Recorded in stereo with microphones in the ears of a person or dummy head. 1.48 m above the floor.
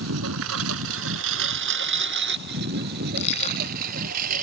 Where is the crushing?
35° left (ahead or behind).